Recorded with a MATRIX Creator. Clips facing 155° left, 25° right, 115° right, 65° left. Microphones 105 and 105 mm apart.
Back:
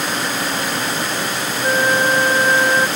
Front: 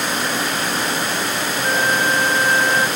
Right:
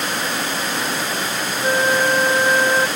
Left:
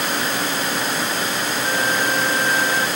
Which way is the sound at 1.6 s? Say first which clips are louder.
Back 3 dB, right 6 dB; 145° right.